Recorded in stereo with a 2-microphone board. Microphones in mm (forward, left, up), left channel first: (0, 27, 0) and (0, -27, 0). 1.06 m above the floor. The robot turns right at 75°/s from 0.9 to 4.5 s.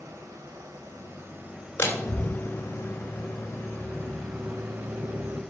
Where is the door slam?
40° left (ahead or behind), 3 m; by 5.4 s 65° right (ahead or behind), 3 m.